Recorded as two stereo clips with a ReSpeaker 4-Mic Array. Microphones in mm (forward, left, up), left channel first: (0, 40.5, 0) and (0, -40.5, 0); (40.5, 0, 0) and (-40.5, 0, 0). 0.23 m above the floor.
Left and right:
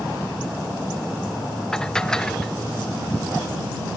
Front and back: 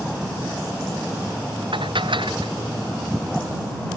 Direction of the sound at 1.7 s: 170° left.